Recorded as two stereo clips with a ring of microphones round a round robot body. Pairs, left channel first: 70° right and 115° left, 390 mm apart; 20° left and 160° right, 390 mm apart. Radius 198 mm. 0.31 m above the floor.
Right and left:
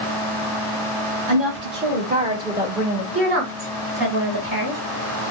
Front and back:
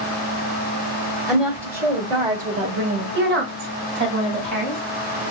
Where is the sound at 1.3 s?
115° left, 1.7 m; by 3.0 s 150° right, 1.6 m.